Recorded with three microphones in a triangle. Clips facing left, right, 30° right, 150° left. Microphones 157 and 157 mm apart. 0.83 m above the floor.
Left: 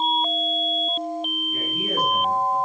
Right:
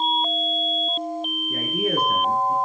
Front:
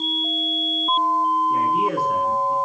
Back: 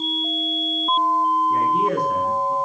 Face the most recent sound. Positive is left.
turn(degrees=-115)